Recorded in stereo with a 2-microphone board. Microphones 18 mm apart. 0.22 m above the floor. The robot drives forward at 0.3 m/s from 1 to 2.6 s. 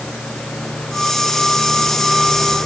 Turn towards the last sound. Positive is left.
No sound to turn to.